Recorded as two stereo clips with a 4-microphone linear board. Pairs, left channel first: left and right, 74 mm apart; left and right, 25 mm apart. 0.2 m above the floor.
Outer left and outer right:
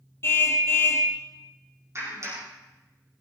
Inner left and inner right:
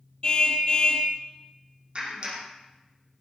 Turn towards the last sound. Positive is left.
turn(degrees=-40)  # may be behind; listen again after turning